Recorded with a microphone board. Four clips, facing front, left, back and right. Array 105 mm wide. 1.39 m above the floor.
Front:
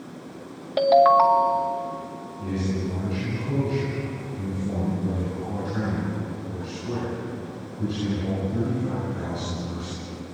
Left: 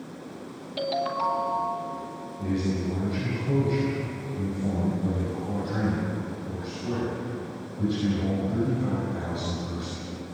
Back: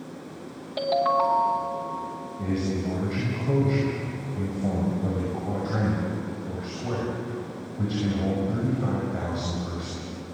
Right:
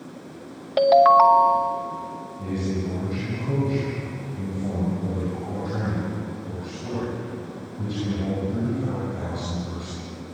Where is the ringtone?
65° right, 1.0 m.